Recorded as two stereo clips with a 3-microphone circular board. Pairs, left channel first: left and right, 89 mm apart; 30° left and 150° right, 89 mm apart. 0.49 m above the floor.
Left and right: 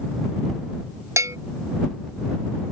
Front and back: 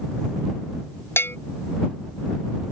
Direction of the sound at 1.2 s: 35° right.